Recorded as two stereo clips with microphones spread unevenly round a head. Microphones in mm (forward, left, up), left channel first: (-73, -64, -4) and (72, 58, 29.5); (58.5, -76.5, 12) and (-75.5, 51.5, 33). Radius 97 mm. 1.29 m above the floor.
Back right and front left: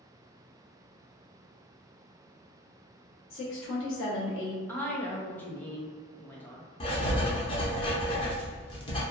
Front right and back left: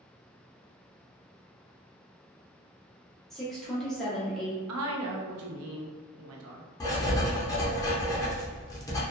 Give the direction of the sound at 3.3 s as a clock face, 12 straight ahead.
4 o'clock.